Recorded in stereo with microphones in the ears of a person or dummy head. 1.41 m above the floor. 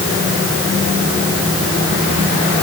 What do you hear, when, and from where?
Only background noise.